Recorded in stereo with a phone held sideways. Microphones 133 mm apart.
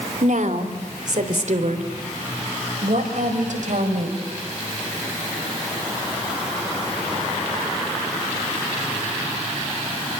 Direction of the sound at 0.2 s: 70° right (ahead or behind).